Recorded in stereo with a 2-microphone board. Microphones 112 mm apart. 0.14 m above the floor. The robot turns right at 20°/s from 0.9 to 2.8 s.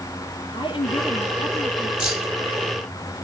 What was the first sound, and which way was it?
A woman speaking, 50° left (ahead or behind).